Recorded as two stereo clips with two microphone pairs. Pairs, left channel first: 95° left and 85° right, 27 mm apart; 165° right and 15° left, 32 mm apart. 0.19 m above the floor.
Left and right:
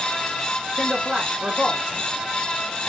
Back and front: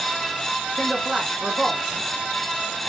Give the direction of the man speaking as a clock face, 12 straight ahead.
2 o'clock.